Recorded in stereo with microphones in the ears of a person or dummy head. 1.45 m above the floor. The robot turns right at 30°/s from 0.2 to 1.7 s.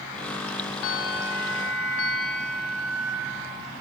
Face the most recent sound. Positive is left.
turn(degrees=70)  # may be behind; listen again after turning